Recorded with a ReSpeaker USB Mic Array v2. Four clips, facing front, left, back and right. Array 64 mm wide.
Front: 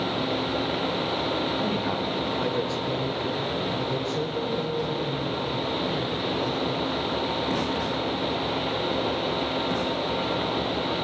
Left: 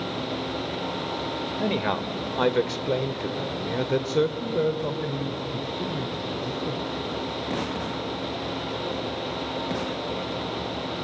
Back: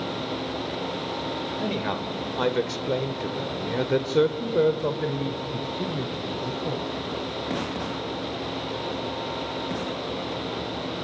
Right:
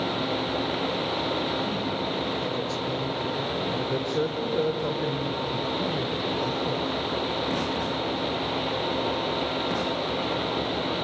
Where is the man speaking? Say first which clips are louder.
Left 2 dB, front 1 dB; 100° left, 1.8 m; by 7.2 s 160° right, 2.5 m.